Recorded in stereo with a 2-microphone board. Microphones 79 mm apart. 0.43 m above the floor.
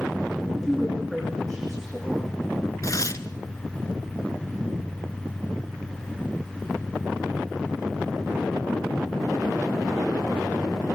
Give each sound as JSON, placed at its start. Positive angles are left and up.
{"t": 0.6, "sound": "a woman speaking", "side_deg": 5, "distance_m": 7.5}
{"t": 2.8, "sound": "tearing paper", "side_deg": 45, "distance_m": 1.0}